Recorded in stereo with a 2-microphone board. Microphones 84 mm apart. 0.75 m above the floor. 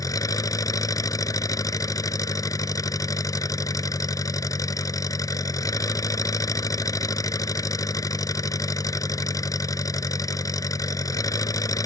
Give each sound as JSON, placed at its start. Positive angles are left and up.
{"t": 0.0, "sound": "an engine running", "side_deg": 45}